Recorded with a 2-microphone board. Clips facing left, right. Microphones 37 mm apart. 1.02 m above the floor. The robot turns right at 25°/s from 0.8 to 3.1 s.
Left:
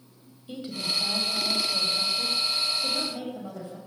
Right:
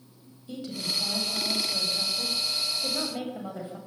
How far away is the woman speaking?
About 6.5 m.